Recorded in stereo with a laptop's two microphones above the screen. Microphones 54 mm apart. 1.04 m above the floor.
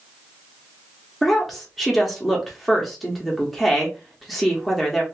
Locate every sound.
1.2 s a woman speaking: centre (ahead or behind), 1.0 m